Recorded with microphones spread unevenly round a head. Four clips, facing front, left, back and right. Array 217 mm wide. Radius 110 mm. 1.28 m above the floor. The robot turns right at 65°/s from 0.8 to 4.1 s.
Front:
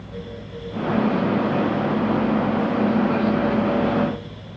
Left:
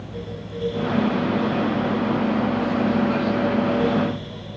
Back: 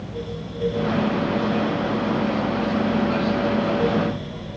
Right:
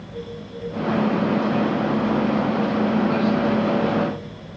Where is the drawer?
I don't hear a drawer.